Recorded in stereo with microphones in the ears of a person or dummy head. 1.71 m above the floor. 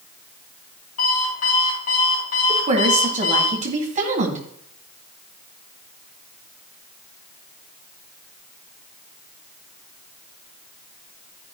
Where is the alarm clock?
45° left (ahead or behind), 4.5 m.